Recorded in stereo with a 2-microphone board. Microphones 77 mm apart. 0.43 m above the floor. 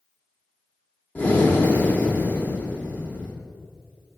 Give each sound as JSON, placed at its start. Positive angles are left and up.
{"t": 1.1, "sound": "breathing", "side_deg": 25, "distance_m": 1.0}